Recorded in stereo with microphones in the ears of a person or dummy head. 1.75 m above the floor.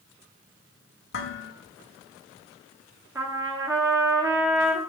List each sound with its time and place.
1.1 s dishes clattering: 65° left (ahead or behind), 1.9 m
3.1 s a trumpet: 15° right (ahead or behind), 1.5 m